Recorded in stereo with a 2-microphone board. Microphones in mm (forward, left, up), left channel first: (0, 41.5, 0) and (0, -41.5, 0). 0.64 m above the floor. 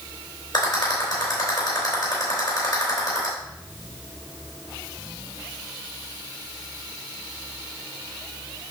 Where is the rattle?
65° left (ahead or behind), 3.5 m.